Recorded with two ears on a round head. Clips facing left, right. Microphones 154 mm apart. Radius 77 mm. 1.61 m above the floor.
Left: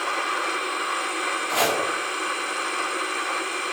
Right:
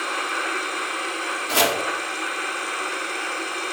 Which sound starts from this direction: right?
Chopping, at 1.5 s.